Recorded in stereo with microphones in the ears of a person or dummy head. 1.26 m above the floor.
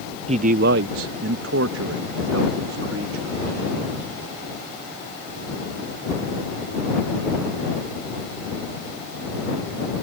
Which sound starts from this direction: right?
A man speaking, at 0.3 s.